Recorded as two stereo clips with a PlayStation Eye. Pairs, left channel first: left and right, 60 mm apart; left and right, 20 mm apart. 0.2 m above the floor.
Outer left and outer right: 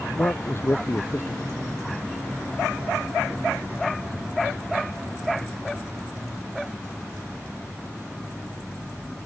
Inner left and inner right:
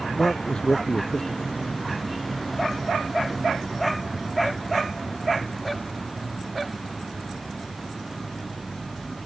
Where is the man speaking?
40° left (ahead or behind).